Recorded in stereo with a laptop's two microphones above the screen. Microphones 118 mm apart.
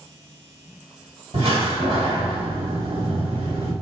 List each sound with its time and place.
1.3 s a door slam: 55° right (ahead or behind), 1.4 m